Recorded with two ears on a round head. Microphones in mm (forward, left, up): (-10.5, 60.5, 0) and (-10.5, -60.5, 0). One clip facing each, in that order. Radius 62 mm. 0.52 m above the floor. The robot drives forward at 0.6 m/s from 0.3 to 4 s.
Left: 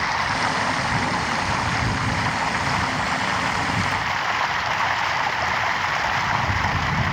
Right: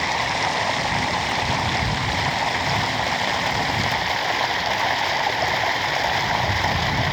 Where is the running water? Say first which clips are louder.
Even; 25° right (ahead or behind); by 7.1 s 30° right (ahead or behind).